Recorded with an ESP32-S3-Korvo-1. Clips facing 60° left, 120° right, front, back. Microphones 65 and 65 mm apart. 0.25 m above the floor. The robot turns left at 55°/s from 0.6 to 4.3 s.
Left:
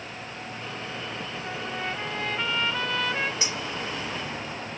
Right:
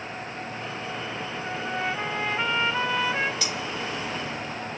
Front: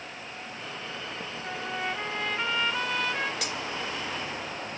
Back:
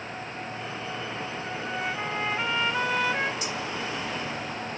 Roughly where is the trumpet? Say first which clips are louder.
Right 4 dB, even; right.